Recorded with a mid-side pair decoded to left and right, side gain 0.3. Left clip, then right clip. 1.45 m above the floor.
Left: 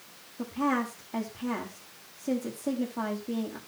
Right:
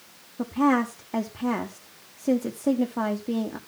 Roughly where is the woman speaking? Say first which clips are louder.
Right 6 dB; right.